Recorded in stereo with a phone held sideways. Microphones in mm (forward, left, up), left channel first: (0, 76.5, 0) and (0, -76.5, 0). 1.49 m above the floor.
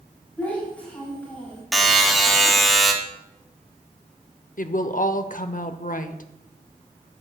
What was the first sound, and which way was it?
A child speaking, 10° left (ahead or behind).